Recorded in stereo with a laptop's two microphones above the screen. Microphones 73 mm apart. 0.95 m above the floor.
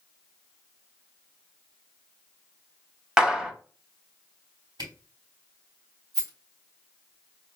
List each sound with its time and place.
3.2 s a clap: 10° right (ahead or behind), 0.9 m
4.8 s a camera shutter: 75° right (ahead or behind), 3 m
6.1 s a rattle: 80° right, 2.5 m